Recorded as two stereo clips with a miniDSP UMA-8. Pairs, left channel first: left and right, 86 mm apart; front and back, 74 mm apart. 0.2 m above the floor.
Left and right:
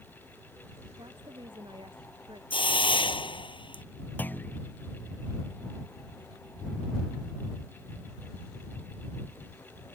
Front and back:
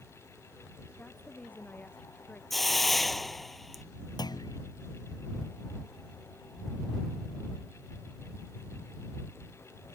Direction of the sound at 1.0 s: 70° right.